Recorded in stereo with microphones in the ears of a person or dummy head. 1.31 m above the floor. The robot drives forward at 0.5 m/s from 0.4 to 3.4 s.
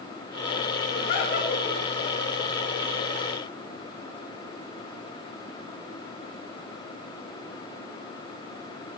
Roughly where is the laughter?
Left.